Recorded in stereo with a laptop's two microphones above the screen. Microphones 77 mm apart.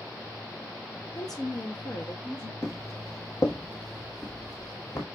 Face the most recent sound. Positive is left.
turn(degrees=50)  # may be behind; listen again after turning